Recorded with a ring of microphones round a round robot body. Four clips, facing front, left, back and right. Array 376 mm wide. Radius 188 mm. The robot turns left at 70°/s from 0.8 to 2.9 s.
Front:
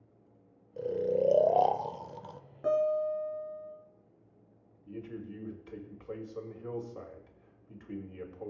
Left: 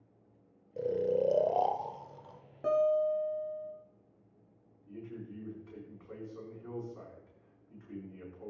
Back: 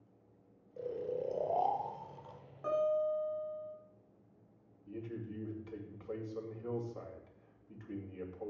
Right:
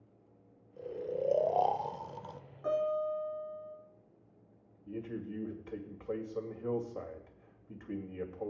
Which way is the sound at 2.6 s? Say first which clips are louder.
Left 4 dB, front 4 dB; 55° left.